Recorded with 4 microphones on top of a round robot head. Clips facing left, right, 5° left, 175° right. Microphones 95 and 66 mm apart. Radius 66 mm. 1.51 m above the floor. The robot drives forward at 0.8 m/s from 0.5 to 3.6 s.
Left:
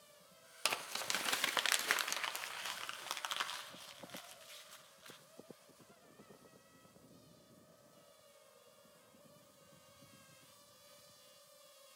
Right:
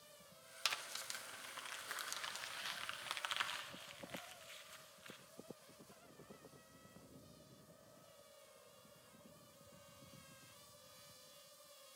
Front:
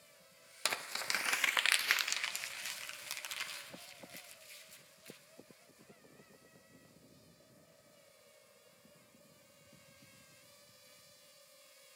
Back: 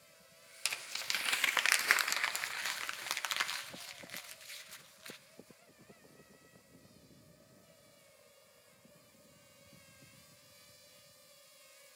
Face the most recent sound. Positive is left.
turn(degrees=160)